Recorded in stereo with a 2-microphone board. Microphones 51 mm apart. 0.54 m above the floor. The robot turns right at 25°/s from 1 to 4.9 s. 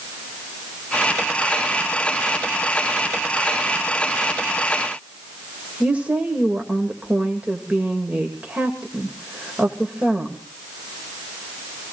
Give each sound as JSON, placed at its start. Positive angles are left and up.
{"t": 5.8, "sound": "a woman speaking", "side_deg": -25, "distance_m": 1.9}